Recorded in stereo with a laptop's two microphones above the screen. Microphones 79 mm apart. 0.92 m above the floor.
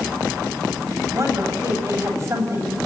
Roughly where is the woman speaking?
Right.